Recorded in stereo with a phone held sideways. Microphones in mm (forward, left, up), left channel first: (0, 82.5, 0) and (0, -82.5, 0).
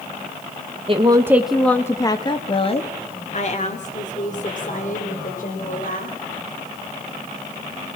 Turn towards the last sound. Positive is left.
turn(degrees=60)  # may be behind; listen again after turning